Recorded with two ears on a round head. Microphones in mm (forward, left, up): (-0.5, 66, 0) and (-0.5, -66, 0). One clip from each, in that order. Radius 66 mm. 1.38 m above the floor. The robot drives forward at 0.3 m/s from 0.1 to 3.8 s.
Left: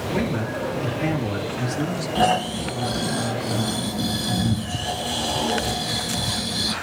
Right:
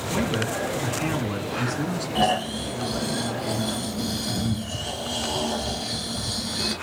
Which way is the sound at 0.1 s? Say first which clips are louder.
Right 1 dB; 75° right (ahead or behind).